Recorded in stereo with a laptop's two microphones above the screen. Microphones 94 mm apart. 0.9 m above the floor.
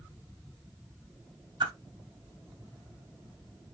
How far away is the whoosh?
About 1.2 m.